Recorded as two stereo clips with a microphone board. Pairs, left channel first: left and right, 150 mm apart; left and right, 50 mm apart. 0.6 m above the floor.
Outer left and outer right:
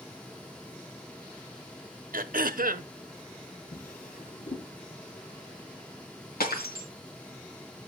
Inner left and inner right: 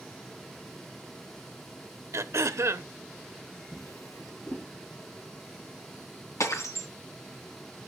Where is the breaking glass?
85° left, 3 m.